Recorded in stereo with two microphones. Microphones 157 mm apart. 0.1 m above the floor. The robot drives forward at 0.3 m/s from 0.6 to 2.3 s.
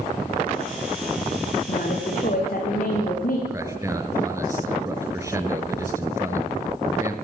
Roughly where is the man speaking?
Centre.